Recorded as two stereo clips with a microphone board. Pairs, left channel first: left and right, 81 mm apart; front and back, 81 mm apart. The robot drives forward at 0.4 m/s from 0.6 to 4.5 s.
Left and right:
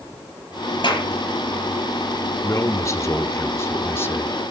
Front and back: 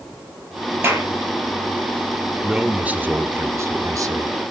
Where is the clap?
115° left, 9.5 m.